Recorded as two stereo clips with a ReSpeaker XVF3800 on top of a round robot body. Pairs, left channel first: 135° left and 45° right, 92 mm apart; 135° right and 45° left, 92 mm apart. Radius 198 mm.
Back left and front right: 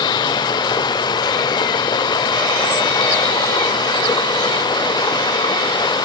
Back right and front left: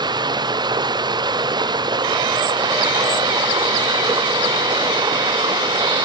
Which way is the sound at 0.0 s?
90° left.